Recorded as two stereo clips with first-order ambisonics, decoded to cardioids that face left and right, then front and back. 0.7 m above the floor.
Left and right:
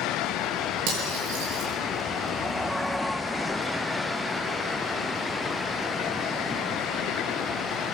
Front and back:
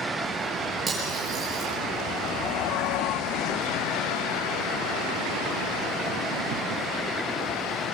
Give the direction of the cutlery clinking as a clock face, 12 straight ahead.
4 o'clock.